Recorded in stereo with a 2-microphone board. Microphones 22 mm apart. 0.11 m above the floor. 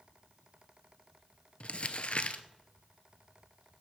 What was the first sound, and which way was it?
Crumpling, 50° left (ahead or behind).